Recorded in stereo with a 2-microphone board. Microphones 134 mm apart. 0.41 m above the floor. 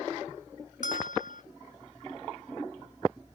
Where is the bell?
75° left (ahead or behind).